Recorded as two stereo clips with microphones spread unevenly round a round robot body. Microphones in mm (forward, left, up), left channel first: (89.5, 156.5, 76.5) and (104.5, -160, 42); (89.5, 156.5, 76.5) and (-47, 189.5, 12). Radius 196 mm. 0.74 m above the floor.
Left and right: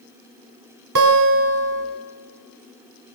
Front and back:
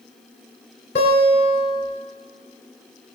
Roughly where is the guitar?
Ahead right.